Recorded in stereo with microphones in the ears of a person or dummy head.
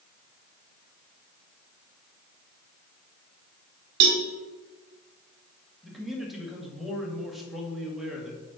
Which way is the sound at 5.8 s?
5° right (ahead or behind).